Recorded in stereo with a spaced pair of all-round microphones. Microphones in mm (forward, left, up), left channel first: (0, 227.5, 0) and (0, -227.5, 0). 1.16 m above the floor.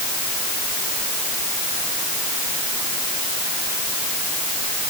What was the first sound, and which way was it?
Only background noise.